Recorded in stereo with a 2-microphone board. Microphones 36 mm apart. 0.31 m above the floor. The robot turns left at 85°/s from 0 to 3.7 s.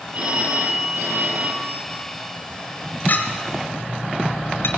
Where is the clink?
50° left (ahead or behind), 3 m; by 4.7 s 75° left (ahead or behind), 3 m.